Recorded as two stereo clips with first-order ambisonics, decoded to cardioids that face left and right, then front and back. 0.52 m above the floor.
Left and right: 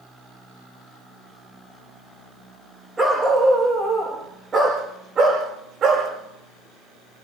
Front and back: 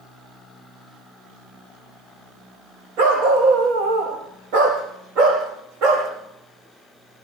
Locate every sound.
3.0 s a dog barking: 175° right, 7.5 m; by 6.1 s 155° right, 7 m